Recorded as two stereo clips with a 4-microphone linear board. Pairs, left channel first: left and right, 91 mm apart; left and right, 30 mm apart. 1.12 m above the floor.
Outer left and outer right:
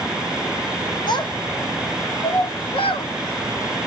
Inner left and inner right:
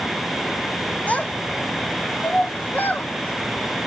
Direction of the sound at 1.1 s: 50° left (ahead or behind).